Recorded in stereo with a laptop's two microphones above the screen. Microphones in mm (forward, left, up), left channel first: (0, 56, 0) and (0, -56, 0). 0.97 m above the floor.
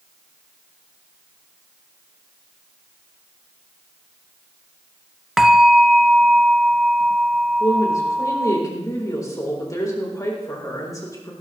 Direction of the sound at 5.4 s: 5° right (ahead or behind).